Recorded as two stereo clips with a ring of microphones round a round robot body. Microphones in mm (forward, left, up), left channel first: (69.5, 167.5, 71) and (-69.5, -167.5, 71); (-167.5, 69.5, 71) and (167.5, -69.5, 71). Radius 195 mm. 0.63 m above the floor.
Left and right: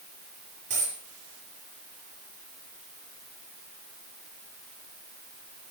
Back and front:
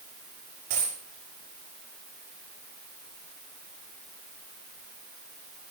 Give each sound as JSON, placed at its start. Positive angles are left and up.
{"t": 0.7, "sound": "a dropped coin", "azimuth_deg": -50, "distance_m": 7.5}